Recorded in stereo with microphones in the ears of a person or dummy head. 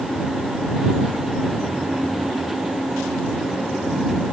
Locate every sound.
Only background noise.